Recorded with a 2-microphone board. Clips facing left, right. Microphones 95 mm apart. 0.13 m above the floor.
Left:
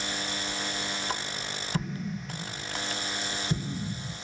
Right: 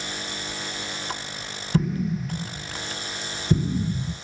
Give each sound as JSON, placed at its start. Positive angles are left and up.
{"t": 1.7, "sound": "an explosion", "side_deg": -60, "distance_m": 0.6}